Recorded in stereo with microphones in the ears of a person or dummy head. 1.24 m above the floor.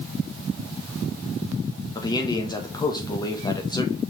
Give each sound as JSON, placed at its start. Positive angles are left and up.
{"t": 1.9, "sound": "a man speaking", "side_deg": 25, "distance_m": 1.5}